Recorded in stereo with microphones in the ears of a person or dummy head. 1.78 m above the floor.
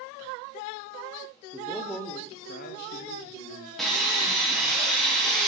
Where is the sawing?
5° left (ahead or behind), 1.5 m.